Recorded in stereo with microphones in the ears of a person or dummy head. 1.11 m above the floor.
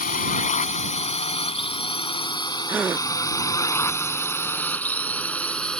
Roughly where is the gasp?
Centre.